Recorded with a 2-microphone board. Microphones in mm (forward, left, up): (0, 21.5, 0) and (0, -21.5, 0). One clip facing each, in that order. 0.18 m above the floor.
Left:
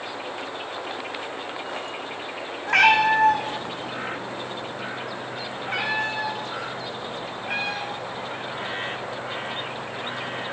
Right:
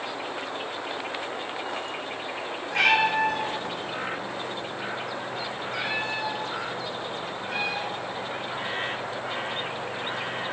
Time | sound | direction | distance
2.7 | a cat meowing | 85° left | 2 m